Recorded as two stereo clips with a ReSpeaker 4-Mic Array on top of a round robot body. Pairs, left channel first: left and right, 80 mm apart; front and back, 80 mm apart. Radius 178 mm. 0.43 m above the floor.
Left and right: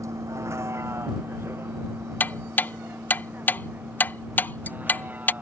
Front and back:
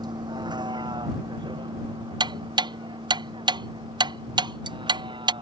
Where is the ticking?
155° left.